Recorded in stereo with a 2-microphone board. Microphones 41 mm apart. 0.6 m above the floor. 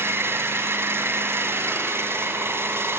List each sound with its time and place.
0.0 s an engine running: 80° right, 3.5 m